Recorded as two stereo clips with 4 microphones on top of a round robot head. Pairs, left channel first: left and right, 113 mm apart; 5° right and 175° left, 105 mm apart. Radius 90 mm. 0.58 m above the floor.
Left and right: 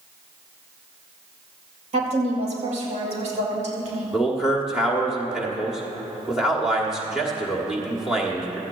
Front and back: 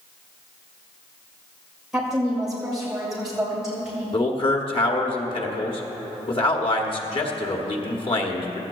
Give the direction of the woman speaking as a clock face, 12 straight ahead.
3 o'clock.